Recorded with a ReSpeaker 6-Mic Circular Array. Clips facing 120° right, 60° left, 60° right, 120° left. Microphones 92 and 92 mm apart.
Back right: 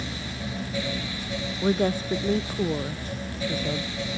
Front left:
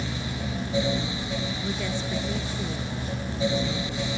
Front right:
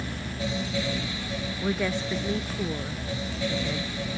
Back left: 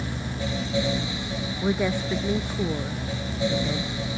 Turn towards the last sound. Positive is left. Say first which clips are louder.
# back right 7 dB, back left 3 dB
turn(degrees=-165)